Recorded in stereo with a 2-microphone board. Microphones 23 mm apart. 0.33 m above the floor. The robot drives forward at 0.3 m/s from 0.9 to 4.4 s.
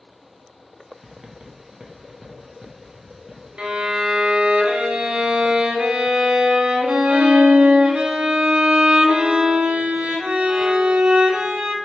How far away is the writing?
About 0.6 m.